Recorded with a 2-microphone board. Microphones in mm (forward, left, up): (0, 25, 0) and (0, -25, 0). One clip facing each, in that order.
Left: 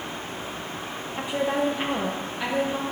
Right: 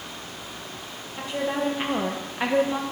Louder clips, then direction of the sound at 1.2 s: Left 2 dB; 20° left (ahead or behind).